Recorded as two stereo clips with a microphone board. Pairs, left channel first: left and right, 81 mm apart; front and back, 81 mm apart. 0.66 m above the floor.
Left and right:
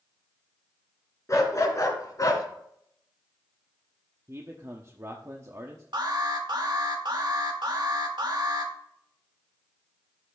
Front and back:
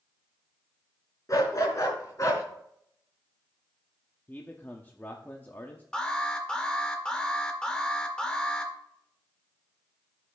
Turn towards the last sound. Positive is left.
turn(degrees=-80)